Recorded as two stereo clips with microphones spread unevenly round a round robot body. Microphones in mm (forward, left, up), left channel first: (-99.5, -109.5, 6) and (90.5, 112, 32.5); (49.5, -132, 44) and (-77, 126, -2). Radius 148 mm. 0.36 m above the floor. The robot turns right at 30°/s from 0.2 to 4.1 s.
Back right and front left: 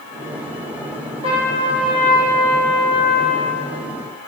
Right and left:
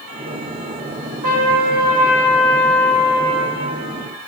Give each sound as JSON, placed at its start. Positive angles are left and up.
{"t": 1.2, "sound": "a trumpet", "azimuth_deg": 120, "distance_m": 5.5}